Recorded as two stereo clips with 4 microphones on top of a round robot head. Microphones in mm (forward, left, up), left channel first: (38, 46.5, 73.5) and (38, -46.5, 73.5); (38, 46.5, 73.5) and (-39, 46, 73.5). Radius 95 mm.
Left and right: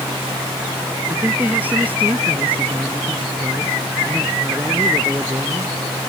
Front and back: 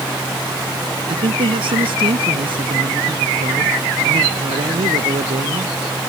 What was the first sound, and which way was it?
A man speaking, 165° right.